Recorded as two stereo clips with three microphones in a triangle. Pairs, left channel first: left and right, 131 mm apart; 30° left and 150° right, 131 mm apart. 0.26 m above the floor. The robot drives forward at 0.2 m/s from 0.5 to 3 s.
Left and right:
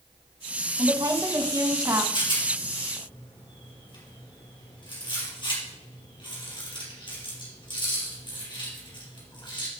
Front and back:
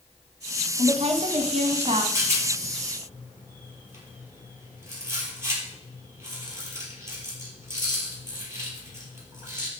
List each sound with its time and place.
0.8 s a woman speaking: 140° right, 1.5 m; by 2.0 s 150° right, 1.6 m
2.1 s a rattle: 140° left, 4.5 m